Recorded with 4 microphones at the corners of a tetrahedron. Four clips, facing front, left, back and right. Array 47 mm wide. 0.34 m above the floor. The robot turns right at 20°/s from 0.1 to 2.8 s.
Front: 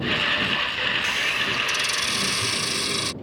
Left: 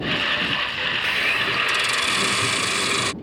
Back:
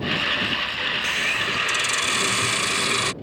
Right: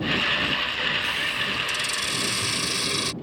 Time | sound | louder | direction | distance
1.0 | a hiss | left 4 dB, even | 95° left | ?